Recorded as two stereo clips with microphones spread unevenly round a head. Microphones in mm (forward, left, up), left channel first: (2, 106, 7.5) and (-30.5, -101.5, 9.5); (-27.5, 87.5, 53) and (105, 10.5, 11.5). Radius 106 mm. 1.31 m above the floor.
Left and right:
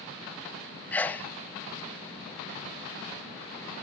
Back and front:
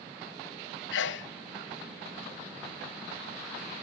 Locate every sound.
0.9 s a sneeze: 165° left, 0.8 m